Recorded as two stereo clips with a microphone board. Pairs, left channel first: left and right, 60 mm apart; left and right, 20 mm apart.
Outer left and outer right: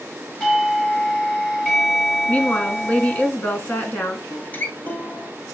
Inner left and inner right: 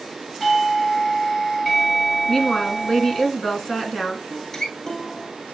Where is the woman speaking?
25° left (ahead or behind), 1.5 m.